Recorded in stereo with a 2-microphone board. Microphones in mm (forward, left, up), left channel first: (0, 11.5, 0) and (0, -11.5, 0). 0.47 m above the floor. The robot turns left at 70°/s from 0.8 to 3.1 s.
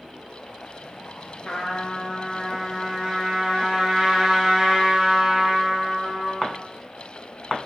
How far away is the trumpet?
About 1.2 m.